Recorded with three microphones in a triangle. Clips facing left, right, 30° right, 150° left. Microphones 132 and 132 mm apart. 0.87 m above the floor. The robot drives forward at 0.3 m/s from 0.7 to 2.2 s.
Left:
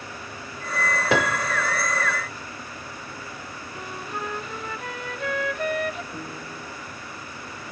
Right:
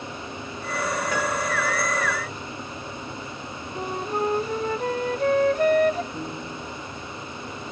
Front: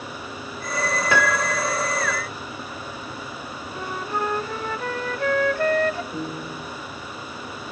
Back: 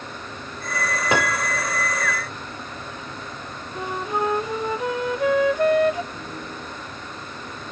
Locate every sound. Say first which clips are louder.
1.1 s a piano: left 2 dB, even; 80° left, 0.6 m; by 1.6 s 95° left, 0.6 m
3.8 s a flute: right 8 dB, back 3 dB; 135° right, 0.5 m
6.1 s a piano: right 3 dB, front 4 dB; 5° left, 3 m